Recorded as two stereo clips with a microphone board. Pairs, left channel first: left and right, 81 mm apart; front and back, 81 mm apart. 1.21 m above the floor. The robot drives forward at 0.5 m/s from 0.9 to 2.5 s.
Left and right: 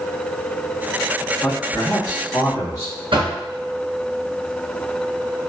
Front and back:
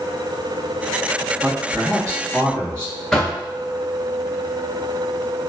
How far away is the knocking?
About 1.0 m.